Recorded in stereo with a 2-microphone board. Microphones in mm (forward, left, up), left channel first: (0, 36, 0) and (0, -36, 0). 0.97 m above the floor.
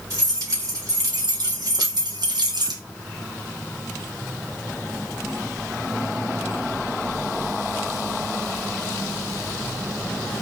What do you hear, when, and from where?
0.1 s keys jangling: 55° right (ahead or behind), 2 m; by 2.8 s 70° right (ahead or behind), 0.6 m